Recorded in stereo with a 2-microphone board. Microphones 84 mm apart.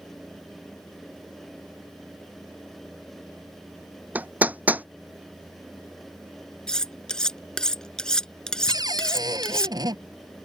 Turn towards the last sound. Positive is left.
turn(degrees=-55)  # may be behind; listen again after turning